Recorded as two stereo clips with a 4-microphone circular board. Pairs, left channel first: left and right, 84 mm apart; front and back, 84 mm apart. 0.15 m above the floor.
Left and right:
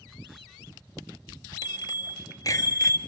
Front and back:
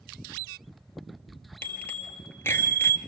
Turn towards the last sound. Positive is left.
turn(degrees=50)